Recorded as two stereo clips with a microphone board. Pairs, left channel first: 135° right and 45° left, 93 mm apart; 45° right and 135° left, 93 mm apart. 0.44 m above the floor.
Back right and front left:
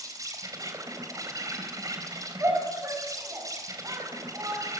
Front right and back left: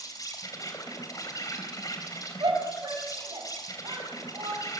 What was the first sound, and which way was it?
An insect, straight ahead.